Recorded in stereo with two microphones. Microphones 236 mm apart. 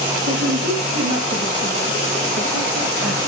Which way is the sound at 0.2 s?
80° right.